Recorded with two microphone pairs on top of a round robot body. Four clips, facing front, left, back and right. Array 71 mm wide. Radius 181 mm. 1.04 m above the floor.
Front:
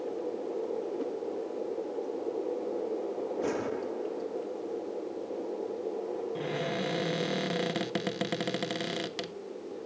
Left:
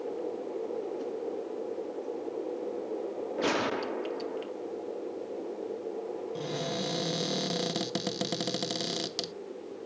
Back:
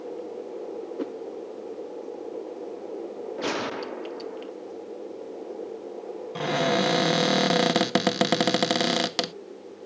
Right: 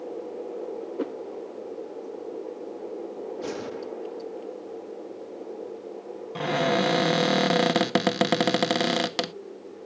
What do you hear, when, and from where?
1.0 s a whoosh: 115° right
3.4 s a gunshot: 140° left
6.3 s a cupboard door: 135° right